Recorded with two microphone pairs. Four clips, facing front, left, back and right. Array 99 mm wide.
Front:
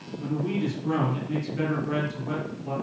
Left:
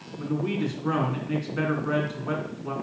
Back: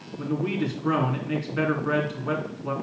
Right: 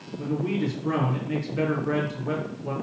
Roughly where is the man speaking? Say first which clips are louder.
Right 1 dB, back 1 dB; behind.